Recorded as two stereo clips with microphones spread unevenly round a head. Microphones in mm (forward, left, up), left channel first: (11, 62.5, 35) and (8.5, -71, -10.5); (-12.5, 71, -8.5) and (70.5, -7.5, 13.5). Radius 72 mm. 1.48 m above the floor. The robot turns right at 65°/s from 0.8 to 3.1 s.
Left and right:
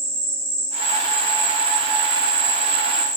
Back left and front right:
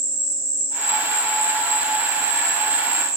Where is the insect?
170° right, 2.5 m; by 3.2 s 20° right, 2.5 m.